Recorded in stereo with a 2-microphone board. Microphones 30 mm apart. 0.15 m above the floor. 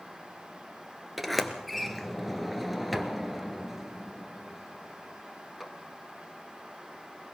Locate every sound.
1.2 s a sliding door: centre (ahead or behind), 1.5 m